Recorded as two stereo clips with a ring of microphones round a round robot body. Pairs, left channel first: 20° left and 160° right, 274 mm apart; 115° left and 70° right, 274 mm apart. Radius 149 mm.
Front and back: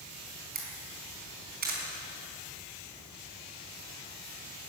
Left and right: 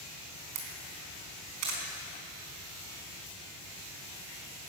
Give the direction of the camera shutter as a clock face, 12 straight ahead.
3 o'clock.